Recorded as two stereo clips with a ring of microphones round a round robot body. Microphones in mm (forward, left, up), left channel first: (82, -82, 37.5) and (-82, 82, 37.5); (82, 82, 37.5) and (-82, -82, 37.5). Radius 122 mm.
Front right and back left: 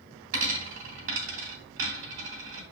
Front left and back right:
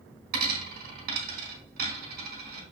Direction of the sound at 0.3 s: 175° left.